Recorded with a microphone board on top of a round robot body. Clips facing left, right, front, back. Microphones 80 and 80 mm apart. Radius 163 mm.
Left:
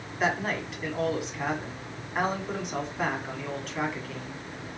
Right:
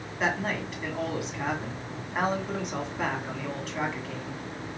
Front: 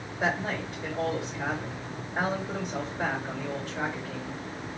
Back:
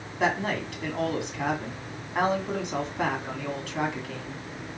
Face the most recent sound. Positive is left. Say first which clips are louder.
# left 1 dB, back 3 dB
turn(degrees=-175)